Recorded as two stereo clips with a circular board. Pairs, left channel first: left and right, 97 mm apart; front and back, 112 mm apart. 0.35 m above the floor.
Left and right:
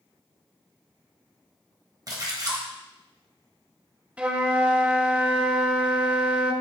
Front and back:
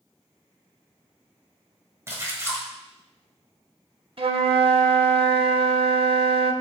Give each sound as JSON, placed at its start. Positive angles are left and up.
{"t": 2.1, "sound": "a splash", "azimuth_deg": -120, "distance_m": 1.4}
{"t": 4.2, "sound": "a flute", "azimuth_deg": -165, "distance_m": 0.6}